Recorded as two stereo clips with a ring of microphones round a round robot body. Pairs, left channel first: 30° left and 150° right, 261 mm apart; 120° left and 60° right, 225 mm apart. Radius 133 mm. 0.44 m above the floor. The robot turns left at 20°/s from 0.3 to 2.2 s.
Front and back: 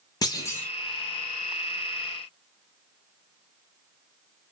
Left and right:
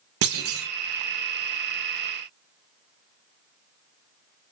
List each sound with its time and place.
0.2 s a clunk: 45° right, 0.5 m; by 0.7 s 55° right, 0.5 m